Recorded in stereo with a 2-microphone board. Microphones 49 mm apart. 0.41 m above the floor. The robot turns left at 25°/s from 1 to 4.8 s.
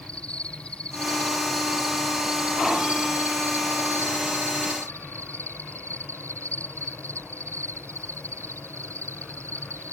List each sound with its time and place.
0.0 s an insect: 20° left; by 9.9 s 75° right